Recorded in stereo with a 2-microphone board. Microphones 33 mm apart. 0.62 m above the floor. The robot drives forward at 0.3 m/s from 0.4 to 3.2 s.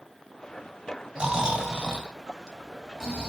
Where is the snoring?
25° right (ahead or behind), 0.9 m; by 3.3 s 15° right (ahead or behind), 1.5 m.